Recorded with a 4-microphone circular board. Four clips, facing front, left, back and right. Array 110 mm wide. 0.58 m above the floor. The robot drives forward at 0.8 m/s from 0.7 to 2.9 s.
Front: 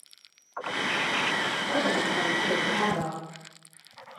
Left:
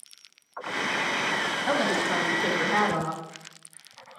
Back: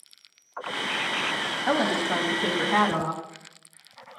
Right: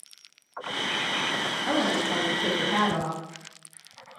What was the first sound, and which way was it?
A woman speaking, 175° left.